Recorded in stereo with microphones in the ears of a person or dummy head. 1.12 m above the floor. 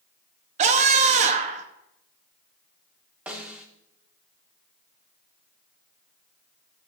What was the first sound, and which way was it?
A scream, 35° right (ahead or behind).